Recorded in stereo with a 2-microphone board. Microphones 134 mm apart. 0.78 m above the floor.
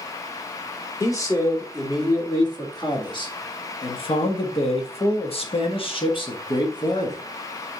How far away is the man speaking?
About 2.5 m.